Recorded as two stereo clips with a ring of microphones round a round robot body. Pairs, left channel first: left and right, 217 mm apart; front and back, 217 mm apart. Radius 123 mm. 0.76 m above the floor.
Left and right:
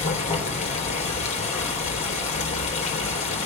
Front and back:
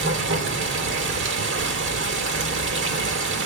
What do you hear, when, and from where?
0.0 s running water: 150° left, 2.5 m